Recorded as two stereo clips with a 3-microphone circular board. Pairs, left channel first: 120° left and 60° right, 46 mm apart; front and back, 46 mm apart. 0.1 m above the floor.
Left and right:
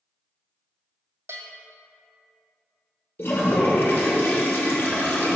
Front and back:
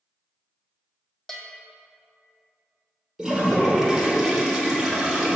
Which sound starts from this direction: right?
A bell, at 1.3 s.